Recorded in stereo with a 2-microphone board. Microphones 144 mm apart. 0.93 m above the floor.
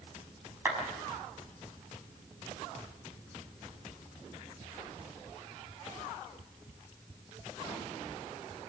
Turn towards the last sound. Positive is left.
turn(degrees=-15)  # may be behind; listen again after turning